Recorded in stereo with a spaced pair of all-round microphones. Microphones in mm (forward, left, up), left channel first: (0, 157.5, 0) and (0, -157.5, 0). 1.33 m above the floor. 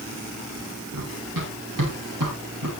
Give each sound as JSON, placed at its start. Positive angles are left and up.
{"t": 0.9, "sound": "running footsteps", "side_deg": -80, "distance_m": 6.5}